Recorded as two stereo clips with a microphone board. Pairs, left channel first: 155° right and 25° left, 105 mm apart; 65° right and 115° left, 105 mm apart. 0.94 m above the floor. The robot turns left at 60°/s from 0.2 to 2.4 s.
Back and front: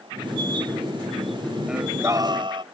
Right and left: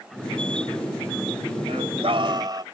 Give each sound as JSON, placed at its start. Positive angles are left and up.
{"t": 1.7, "sound": "singing", "azimuth_deg": 105}